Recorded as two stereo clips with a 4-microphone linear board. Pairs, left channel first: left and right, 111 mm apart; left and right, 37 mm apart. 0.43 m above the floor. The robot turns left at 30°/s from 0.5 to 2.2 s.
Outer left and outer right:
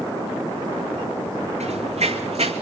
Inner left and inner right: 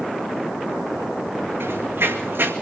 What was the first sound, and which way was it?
Running footsteps, 80° right.